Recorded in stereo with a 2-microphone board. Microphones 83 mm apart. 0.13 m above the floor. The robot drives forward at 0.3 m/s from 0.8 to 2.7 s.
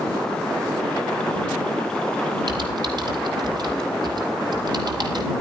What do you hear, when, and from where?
2.5 s typing on a keyboard: 60° right (ahead or behind), 3 m; by 5.3 s 55° right (ahead or behind), 3 m